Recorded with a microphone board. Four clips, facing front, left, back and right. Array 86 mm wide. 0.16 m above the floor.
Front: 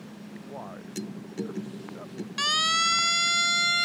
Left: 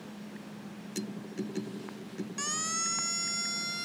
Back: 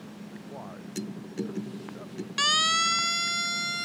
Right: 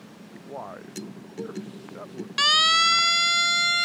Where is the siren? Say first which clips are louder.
Right 18 dB, even; 105° right; by 3.9 s 55° right.